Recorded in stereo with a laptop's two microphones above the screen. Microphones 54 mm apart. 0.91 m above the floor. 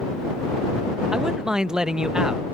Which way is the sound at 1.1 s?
10° right (ahead or behind).